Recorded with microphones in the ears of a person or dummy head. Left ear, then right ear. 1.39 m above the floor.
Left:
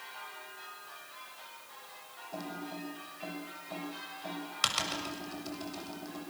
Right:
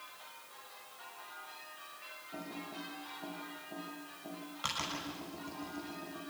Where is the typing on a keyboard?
60° left (ahead or behind), 7 m.